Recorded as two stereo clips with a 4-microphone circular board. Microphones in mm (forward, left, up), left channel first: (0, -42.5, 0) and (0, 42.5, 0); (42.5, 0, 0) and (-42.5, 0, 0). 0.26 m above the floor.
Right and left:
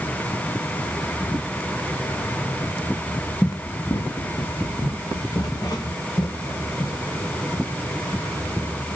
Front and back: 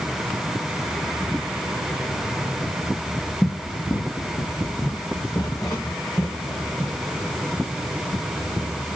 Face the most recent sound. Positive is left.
turn(degrees=-50)